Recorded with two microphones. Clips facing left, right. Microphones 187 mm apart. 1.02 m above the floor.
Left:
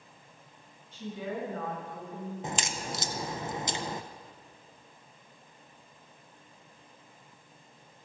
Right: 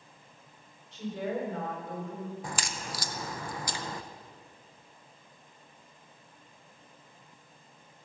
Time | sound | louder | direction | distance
0.9 | a woman speaking | right 3 dB | 85° right | 4.5 m
2.4 | a crack | left 3 dB | 20° left (ahead or behind) | 0.5 m